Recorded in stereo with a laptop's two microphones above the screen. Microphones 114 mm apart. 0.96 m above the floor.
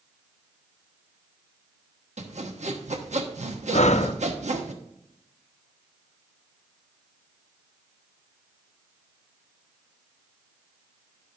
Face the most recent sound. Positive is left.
turn(degrees=80)